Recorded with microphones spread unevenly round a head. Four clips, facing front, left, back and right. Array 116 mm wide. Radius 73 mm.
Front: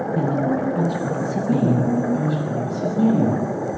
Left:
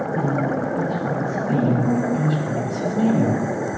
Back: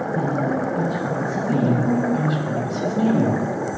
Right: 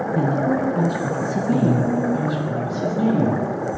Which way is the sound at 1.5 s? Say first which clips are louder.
Right 1 dB, front 1 dB; 160° left.